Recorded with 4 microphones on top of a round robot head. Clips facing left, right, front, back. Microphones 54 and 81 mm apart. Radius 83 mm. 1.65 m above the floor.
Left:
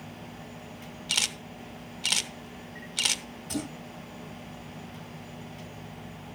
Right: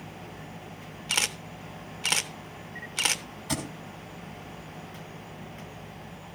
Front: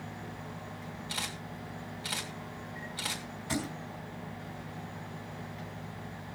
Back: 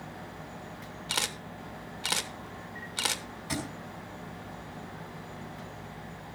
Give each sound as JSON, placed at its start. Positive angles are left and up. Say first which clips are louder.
{"t": 1.1, "sound": "a camera shutter", "louder": "right 2 dB, back 6 dB", "azimuth_deg": -150, "distance_m": 0.9}
{"t": 3.5, "sound": "a thud", "louder": "right 1 dB, front 1 dB", "azimuth_deg": -95, "distance_m": 3.5}